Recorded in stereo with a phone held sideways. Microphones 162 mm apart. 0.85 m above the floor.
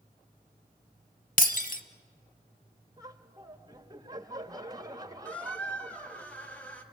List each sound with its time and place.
1.4 s breaking glass: 55° left (ahead or behind), 1.1 m
3.0 s laughter: 25° right (ahead or behind), 1.3 m
5.2 s a squeak: 10° left (ahead or behind), 1.8 m